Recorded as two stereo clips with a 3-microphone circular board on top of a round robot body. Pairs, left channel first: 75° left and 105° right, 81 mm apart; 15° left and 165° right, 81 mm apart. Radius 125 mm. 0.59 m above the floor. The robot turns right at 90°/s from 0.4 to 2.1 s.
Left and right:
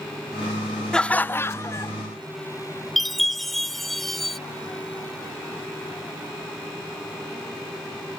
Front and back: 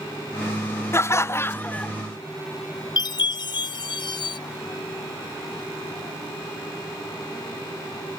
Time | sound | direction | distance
0.9 | laughter | straight ahead | ?
3.0 | a chime | 15° right | ?